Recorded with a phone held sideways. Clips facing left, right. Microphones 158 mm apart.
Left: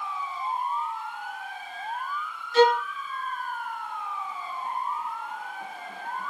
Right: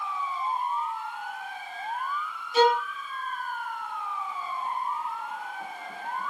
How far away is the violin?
About 1.9 m.